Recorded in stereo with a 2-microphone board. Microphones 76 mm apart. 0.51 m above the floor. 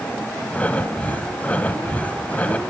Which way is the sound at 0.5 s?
20° left (ahead or behind).